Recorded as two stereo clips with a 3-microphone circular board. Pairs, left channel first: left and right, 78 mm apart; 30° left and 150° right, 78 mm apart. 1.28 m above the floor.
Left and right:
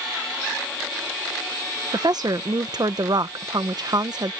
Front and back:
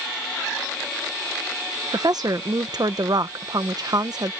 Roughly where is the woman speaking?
Behind right.